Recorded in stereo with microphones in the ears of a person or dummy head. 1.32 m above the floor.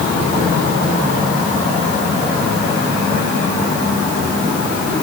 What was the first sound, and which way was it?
Only background noise.